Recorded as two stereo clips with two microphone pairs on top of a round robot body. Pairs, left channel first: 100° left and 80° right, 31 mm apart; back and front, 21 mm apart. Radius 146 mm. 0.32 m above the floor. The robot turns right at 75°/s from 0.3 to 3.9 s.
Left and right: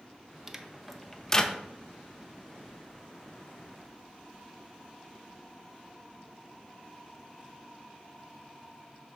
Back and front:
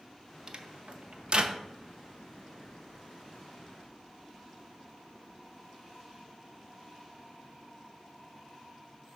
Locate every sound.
0.5 s a microwave: 35° right, 1.0 m; by 1.6 s 50° left, 1.0 m